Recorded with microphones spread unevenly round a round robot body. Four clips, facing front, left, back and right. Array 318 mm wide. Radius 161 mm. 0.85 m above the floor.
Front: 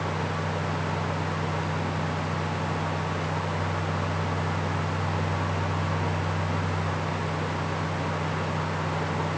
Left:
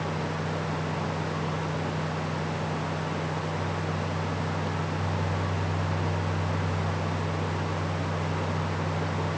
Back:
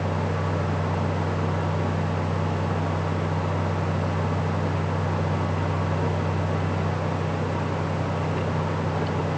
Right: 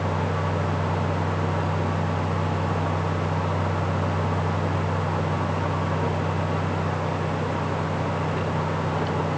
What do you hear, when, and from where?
Only background noise.